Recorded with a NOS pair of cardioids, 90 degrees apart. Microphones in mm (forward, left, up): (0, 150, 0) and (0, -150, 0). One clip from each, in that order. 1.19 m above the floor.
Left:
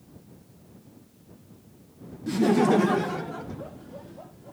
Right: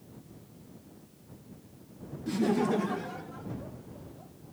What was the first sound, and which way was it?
Laughter, 15° left.